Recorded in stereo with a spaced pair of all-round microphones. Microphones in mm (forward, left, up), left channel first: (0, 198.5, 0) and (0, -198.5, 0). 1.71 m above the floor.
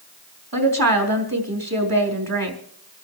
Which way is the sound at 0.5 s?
60° right (ahead or behind).